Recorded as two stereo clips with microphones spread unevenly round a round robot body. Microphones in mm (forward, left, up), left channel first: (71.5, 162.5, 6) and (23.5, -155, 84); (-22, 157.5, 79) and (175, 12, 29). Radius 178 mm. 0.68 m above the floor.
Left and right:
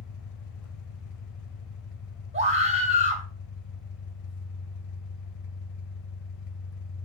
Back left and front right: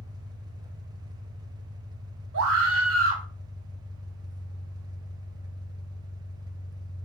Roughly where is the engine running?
Ahead left.